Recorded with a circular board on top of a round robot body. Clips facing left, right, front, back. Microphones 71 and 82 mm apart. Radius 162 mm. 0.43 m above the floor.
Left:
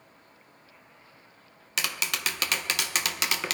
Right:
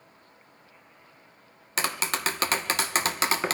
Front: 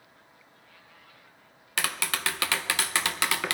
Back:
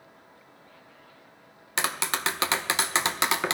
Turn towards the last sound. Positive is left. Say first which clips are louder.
# right 3 dB, back 2 dB
turn(degrees=-125)